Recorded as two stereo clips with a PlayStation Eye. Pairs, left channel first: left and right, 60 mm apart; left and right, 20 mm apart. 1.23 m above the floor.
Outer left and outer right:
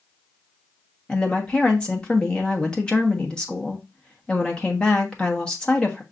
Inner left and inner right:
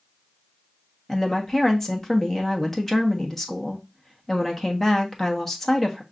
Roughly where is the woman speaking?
Centre.